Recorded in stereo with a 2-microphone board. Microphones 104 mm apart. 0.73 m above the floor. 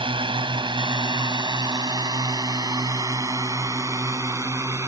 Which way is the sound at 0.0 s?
55° right (ahead or behind).